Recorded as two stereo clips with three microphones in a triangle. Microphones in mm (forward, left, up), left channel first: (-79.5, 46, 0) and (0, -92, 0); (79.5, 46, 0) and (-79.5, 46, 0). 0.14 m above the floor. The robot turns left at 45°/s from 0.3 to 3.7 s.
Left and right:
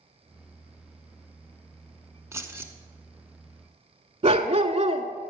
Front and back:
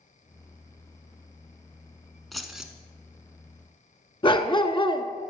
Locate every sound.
2.3 s keys jangling: 85° right, 0.8 m; by 2.7 s 105° right, 0.8 m
4.2 s a dog barking: 40° right, 0.6 m